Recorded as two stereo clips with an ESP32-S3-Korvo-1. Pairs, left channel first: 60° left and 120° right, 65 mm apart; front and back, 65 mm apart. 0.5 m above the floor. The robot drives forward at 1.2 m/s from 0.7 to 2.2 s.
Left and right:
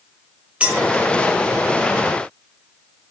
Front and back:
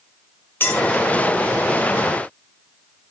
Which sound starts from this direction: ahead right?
A clink, at 0.6 s.